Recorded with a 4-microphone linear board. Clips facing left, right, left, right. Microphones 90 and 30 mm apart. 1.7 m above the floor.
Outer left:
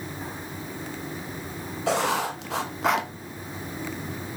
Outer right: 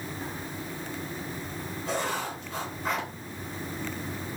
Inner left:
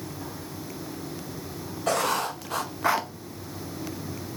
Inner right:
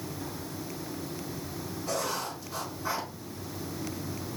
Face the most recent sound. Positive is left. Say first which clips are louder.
# outer left 7 dB, inner left 8 dB
turn(degrees=85)